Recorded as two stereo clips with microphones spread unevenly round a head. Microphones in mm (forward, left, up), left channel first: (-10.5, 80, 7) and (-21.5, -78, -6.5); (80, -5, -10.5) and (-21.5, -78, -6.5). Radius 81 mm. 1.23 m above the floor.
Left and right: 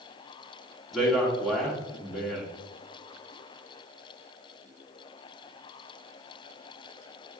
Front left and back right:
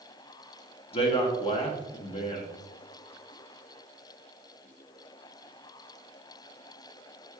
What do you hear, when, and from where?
0.9 s a man speaking: 5° right, 0.9 m